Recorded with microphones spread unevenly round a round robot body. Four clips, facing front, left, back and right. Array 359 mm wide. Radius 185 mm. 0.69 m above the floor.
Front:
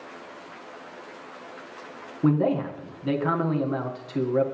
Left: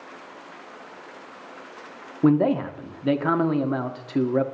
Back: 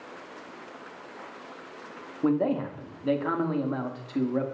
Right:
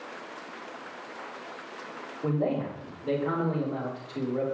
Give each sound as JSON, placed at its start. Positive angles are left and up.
{"t": 2.2, "sound": "a man speaking", "azimuth_deg": 85, "distance_m": 1.5}